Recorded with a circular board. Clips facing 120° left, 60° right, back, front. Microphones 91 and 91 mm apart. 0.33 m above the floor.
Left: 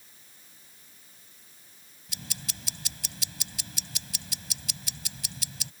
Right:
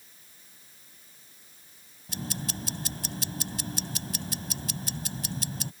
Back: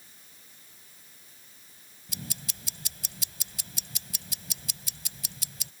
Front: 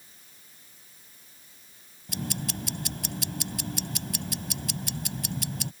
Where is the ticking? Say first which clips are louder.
Right 9 dB, front 10 dB; 20° right.